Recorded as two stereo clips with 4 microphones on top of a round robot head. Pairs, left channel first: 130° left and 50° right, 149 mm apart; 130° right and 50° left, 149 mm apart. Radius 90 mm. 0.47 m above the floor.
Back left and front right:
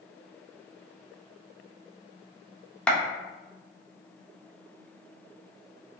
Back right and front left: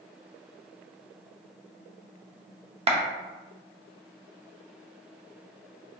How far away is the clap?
About 0.6 m.